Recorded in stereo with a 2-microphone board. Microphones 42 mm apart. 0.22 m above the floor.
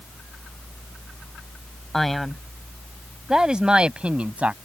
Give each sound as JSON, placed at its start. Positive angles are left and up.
{"t": 1.9, "sound": "a man speaking", "side_deg": 5}